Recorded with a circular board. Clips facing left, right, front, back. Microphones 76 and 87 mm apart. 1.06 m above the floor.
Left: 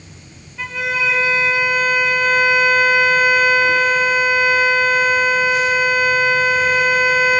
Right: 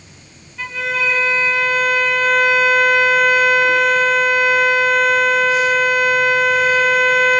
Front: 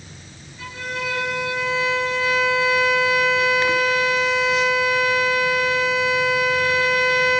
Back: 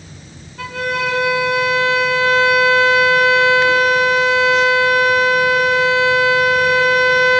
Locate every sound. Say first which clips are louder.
0.6 s a violin: even, back 8 dB; 175° left, 4.5 m